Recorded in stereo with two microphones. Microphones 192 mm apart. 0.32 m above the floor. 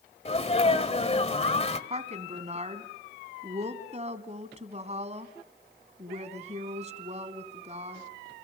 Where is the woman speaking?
35° right (ahead or behind), 2 m.